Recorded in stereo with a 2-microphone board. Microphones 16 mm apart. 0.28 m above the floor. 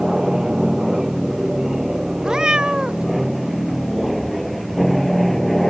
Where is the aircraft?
30° right (ahead or behind); by 5.7 s 15° left (ahead or behind).